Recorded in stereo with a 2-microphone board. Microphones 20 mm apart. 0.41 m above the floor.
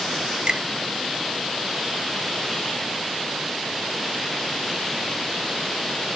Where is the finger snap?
45° right (ahead or behind), 1.4 m.